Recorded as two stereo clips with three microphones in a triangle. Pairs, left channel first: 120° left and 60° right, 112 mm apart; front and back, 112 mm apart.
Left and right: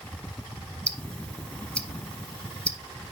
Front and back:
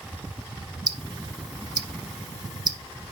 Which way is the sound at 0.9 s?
170° right.